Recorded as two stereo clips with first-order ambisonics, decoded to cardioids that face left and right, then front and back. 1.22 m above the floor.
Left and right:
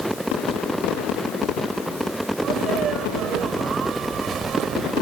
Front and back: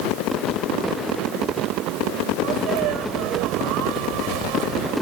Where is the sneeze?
155° right.